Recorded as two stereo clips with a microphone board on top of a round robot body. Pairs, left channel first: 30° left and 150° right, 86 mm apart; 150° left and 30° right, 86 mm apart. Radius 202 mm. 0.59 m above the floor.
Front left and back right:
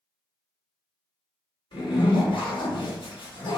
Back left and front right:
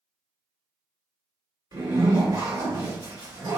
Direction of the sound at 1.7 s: 15° left.